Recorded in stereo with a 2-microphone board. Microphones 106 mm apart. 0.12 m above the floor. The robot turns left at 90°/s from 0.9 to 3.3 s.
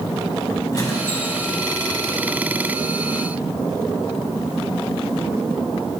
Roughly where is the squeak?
Ahead left.